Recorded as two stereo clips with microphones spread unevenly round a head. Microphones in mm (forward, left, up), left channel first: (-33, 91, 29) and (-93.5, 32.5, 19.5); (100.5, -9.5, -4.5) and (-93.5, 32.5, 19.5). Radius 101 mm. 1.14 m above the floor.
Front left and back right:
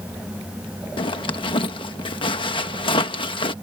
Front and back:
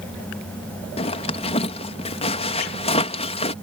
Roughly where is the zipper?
Ahead left.